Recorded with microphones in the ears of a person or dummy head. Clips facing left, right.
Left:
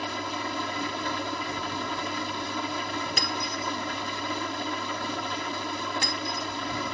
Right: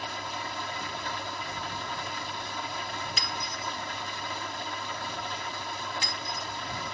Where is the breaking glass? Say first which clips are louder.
Left 5 dB; 50° left (ahead or behind).